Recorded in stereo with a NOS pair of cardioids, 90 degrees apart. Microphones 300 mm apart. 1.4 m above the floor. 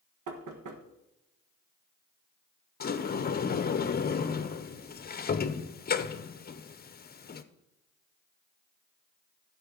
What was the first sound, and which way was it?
Knocking, 70° right.